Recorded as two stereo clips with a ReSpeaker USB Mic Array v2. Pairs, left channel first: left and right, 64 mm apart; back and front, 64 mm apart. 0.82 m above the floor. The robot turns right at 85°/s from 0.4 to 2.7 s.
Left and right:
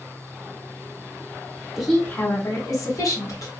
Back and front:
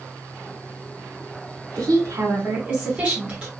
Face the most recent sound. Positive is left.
turn(degrees=75)